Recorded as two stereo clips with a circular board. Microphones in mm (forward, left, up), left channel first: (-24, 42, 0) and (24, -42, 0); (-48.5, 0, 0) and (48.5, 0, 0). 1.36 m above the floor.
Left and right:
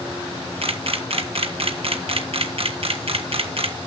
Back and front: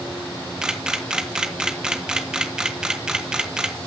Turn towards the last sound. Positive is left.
turn(degrees=-80)